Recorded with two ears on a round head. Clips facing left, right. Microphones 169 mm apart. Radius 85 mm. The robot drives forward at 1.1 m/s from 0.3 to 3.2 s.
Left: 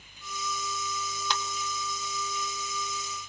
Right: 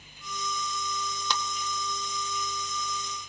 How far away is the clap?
About 1.3 m.